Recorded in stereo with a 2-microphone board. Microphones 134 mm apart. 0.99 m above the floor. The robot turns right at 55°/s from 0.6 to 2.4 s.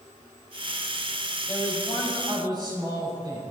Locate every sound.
1.5 s a man speaking: 160° left, 5 m; by 3.4 s 145° right, 5 m